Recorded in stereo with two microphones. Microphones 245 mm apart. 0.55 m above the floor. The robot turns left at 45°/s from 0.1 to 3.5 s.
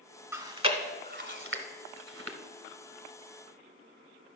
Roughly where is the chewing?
Centre.